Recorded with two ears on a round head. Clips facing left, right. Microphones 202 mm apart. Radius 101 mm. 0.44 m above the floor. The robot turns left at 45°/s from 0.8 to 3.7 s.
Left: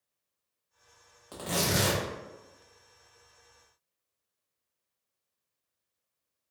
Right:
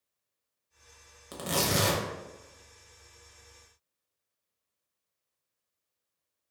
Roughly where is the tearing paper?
Behind right.